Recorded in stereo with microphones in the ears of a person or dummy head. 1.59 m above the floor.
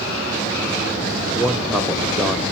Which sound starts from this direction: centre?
A man speaking, at 1.4 s.